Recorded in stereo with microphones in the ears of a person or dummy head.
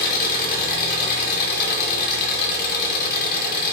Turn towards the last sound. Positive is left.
turn(degrees=55)  # may be behind; listen again after turning